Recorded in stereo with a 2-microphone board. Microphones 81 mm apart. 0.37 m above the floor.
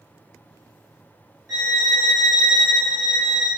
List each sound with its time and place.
1.5 s a violin: 40° right (ahead or behind), 1.6 m